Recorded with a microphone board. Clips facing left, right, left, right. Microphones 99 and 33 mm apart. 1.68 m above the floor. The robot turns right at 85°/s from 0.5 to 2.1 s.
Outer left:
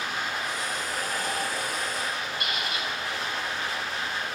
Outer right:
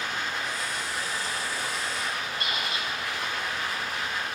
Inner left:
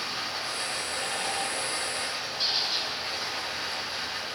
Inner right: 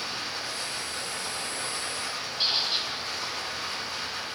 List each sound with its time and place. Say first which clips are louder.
0.0 s running water: outer left 1 dB, inner left 1 dB; 15° left, 9 m; by 4.4 s 150° left, 9 m
2.4 s a squeak: even, inner right 2 dB; 35° right (ahead or behind), 3 m